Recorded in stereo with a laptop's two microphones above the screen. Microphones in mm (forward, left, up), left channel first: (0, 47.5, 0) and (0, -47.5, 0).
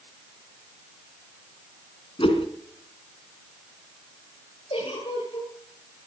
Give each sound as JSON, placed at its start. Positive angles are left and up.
{"t": 2.2, "sound": "a whoosh", "side_deg": 75, "distance_m": 3.0}
{"t": 4.7, "sound": "a giggle", "side_deg": 80, "distance_m": 8.5}